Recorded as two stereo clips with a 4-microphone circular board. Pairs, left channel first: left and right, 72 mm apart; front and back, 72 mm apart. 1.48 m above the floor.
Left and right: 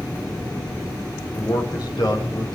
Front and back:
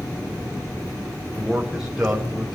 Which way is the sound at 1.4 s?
95° left.